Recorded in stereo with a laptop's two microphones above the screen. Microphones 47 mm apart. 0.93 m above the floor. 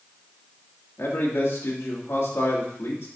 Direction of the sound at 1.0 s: 65° left (ahead or behind).